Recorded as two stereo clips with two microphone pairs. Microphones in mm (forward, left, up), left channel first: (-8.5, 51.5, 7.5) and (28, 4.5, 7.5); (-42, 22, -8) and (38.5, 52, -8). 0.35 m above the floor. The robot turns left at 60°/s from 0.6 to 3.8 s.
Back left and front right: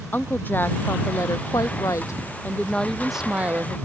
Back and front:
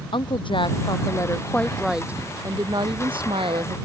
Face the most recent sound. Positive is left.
turn(degrees=-10)